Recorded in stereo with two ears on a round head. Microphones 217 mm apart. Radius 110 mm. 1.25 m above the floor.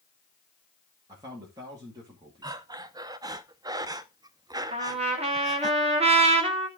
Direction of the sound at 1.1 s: 15° right (ahead or behind).